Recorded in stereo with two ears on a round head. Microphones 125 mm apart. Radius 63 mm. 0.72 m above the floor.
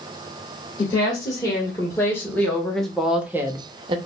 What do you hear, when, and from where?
0.8 s a woman speaking: 25° left (ahead or behind), 1.9 m; by 4.0 s 35° right (ahead or behind), 0.7 m